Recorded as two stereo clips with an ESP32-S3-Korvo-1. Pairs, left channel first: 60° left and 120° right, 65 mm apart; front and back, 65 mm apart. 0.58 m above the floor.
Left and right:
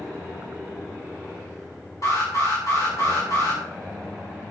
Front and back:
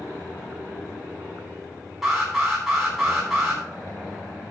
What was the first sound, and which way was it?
An alarm, 95° left.